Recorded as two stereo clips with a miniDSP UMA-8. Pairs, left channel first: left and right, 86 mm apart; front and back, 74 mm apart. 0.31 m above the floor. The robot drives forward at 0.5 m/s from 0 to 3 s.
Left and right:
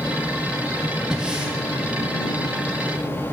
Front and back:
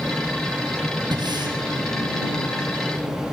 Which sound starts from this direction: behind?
Breathing, at 1.1 s.